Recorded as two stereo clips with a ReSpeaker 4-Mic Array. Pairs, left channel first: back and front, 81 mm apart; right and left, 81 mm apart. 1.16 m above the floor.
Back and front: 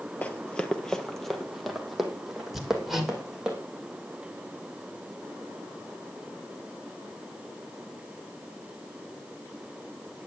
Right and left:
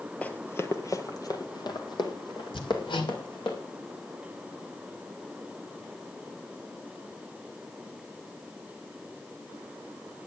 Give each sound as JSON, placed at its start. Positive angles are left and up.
{"t": 0.2, "sound": "running footsteps", "azimuth_deg": -140, "distance_m": 1.2}
{"t": 2.5, "sound": "hammering", "azimuth_deg": -85, "distance_m": 2.5}